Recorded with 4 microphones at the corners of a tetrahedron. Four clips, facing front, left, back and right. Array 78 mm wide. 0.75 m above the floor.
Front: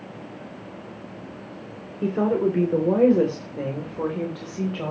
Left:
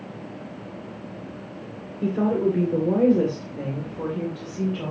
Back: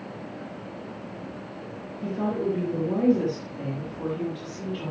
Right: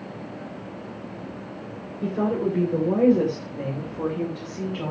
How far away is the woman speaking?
About 2.5 m.